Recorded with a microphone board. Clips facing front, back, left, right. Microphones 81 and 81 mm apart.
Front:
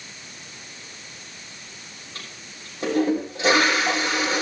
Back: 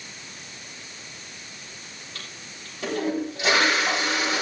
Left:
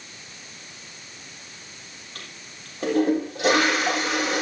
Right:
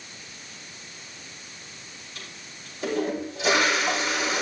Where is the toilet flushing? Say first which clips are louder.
Front 2 dB, left 1 dB; 60° left, 7 m.